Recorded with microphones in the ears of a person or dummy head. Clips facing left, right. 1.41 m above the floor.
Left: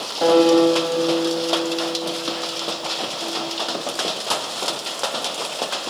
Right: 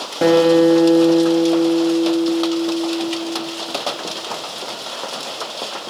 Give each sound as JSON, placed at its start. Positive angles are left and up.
{"t": 0.2, "sound": "a guitar", "side_deg": -30, "distance_m": 2.0}